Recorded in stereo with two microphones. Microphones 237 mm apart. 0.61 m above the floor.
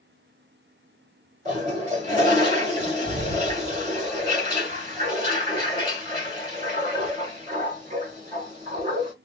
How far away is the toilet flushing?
About 1.7 m.